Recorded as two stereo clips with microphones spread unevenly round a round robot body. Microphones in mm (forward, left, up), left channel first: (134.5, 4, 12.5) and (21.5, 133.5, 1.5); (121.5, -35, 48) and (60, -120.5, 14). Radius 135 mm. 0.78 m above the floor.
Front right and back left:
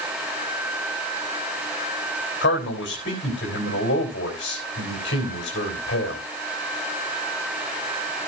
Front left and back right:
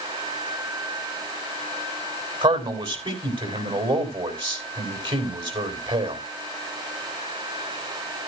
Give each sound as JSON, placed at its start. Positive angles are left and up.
{"t": 2.4, "sound": "a man speaking", "azimuth_deg": -95, "distance_m": 4.0}